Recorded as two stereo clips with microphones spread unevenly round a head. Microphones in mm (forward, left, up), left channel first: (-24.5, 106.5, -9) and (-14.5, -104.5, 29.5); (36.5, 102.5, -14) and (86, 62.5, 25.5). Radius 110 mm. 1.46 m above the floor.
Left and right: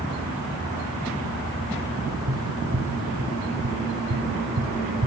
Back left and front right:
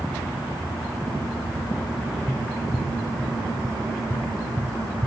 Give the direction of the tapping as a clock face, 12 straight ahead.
3 o'clock.